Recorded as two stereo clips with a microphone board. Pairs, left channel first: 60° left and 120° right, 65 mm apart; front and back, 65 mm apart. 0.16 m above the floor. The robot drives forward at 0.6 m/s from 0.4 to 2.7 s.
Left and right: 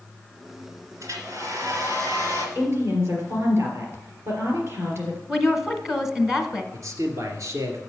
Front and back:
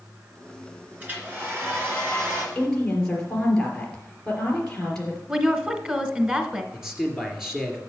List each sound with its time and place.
1.0 s a hair dryer: 120° right, 2.5 m; by 2.5 s 135° right, 3 m
2.5 s a woman speaking: 75° right, 3.5 m
5.3 s a woman speaking: 170° left, 1.0 m
6.7 s a man speaking: 95° right, 2 m